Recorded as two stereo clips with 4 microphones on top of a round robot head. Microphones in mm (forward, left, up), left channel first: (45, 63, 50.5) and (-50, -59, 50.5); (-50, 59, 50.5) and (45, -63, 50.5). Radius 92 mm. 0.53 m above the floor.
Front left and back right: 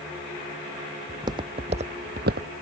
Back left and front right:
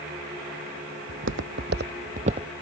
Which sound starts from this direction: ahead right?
Footsteps, at 1.1 s.